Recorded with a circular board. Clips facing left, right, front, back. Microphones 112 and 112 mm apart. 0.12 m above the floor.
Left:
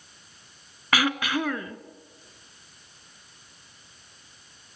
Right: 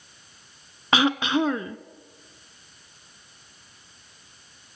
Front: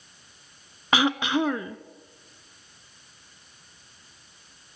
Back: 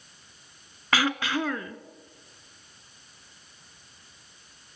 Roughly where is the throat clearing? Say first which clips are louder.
Right 4 dB, front 3 dB; ahead right.